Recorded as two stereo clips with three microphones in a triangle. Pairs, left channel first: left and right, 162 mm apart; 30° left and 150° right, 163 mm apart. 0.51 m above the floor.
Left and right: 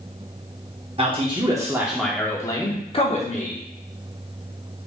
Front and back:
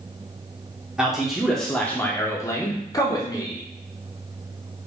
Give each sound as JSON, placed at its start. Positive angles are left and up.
{"t": 1.0, "sound": "a man speaking", "azimuth_deg": -65, "distance_m": 0.9}